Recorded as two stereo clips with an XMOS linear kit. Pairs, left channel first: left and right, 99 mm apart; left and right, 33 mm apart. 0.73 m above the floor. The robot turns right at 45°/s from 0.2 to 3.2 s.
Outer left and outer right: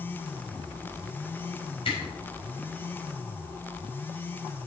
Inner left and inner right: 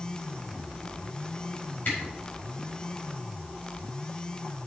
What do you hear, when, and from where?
1.9 s a camera shutter: 75° left (ahead or behind), 5 m; by 2.0 s 70° left (ahead or behind), 5 m